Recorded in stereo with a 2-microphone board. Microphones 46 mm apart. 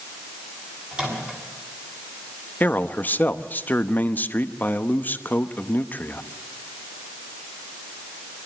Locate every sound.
0.9 s a microwave: 25° right (ahead or behind), 7.5 m
2.6 s a man speaking: 40° left (ahead or behind), 0.9 m